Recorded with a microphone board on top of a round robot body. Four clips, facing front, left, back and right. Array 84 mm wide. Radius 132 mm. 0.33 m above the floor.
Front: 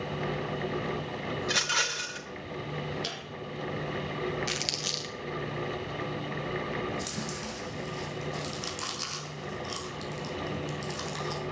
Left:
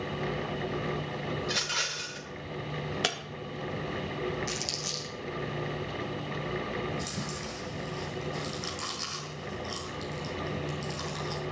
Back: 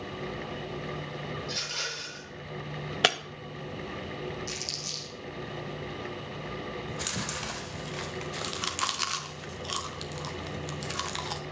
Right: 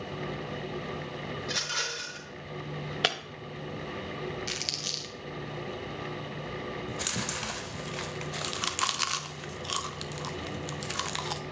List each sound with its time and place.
1.4 s a rattle: straight ahead, 3 m
3.0 s breaking glass: 165° right, 1.1 m
4.5 s crumpling: 25° right, 2.5 m
6.9 s chewing: 120° right, 1.5 m